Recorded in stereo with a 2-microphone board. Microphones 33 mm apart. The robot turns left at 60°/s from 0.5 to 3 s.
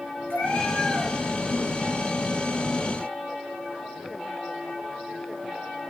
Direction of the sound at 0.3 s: 70° left.